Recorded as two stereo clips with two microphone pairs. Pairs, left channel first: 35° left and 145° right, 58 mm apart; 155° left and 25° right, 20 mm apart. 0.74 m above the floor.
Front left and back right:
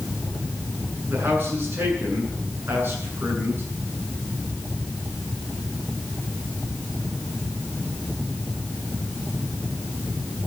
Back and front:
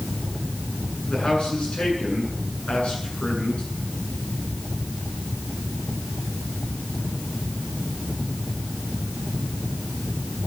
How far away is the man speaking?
About 8.5 m.